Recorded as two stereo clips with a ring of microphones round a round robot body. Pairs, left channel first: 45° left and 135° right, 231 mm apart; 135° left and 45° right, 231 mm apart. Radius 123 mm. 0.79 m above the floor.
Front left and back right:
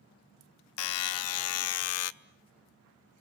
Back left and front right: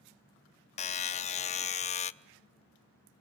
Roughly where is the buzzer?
Left.